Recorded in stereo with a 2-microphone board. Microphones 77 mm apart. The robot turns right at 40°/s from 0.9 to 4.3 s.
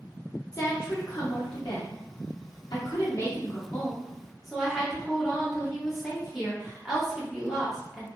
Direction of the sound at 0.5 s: 50° left.